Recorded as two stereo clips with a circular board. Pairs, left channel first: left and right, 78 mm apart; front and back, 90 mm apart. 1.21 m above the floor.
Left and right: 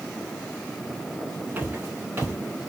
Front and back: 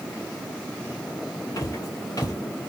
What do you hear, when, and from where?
1.6 s footsteps: 35° right, 2.0 m